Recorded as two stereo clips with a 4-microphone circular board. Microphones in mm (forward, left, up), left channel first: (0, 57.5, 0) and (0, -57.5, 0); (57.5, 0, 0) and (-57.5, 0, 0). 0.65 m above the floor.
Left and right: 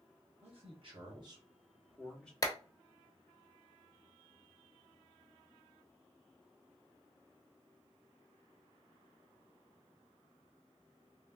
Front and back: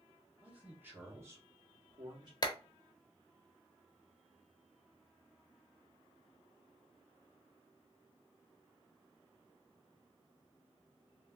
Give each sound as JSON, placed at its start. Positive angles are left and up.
{"t": 0.4, "sound": "a man speaking", "azimuth_deg": -105, "distance_m": 1.9}
{"t": 2.4, "sound": "a clap", "azimuth_deg": 40, "distance_m": 0.7}